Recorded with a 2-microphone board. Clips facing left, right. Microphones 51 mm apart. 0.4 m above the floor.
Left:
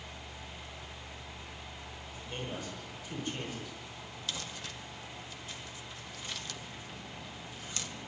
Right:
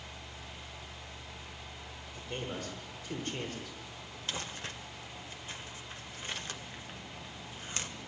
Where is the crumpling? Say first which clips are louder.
Right 3 dB; 35° right (ahead or behind), 1.3 m.